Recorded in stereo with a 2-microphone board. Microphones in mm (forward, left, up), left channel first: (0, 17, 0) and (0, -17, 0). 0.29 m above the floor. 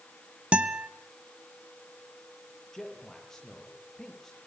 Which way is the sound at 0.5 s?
35° right (ahead or behind).